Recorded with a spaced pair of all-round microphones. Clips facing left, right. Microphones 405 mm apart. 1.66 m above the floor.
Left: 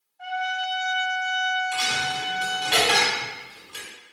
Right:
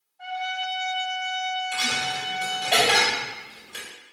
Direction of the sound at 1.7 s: 15° left (ahead or behind).